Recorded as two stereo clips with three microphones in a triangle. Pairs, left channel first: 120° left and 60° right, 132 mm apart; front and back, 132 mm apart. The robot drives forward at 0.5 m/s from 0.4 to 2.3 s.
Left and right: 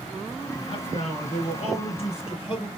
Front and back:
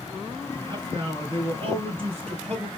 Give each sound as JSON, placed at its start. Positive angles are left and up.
{"t": 0.6, "sound": "a man speaking", "azimuth_deg": 135, "distance_m": 2.5}